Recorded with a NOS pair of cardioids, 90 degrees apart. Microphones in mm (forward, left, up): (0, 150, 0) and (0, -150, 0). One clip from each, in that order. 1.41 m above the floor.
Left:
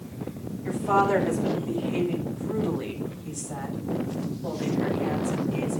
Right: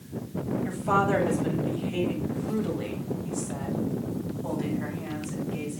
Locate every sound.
0.6 s a woman speaking: 10° right, 9 m; by 5.8 s 15° left, 7.5 m